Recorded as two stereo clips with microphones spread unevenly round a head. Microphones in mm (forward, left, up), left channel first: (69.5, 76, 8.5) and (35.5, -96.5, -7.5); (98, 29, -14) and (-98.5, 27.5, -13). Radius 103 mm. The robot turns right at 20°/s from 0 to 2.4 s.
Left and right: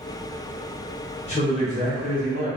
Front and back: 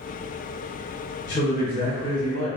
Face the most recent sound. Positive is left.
turn(degrees=50)